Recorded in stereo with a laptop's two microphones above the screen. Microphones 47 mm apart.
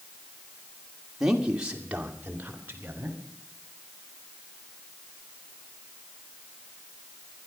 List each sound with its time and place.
1.2 s a man speaking: 10° right (ahead or behind), 2.5 m; by 3.2 s 45° right (ahead or behind), 3 m